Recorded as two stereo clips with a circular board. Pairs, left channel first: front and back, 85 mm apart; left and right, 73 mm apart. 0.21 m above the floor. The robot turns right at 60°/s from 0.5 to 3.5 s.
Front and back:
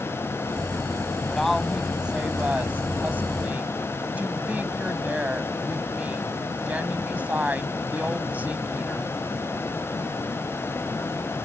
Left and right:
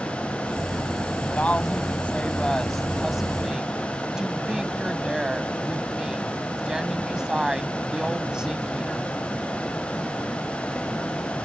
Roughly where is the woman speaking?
Left.